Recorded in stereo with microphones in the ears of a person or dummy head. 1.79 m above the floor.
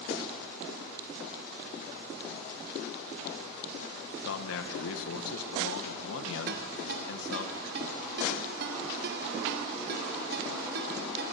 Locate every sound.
4.2 s a man speaking: 75° left (ahead or behind), 2 m
6.5 s a ringtone: 55° right (ahead or behind), 2.5 m